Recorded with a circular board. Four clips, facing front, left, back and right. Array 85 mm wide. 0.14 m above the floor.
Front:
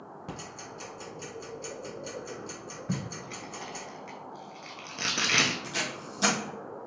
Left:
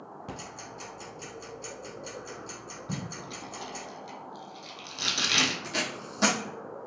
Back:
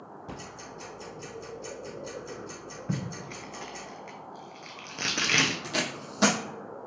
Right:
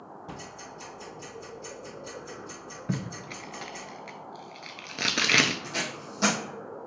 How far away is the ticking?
About 1.7 m.